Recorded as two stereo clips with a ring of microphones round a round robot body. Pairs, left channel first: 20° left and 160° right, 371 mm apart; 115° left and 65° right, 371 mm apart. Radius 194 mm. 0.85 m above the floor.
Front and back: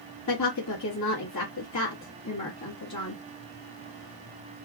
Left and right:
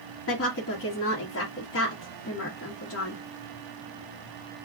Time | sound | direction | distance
0.3 | a woman speaking | 60° left | 1.5 m